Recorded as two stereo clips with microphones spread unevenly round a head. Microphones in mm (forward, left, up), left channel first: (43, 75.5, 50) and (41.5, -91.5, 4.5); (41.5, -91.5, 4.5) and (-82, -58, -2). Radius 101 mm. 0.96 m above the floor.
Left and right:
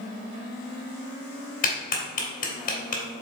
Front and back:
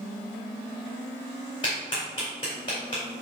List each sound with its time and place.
1.6 s a clap: 55° left, 2 m